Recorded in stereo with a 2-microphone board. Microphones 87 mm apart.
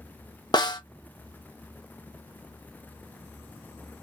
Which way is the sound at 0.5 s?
50° left (ahead or behind).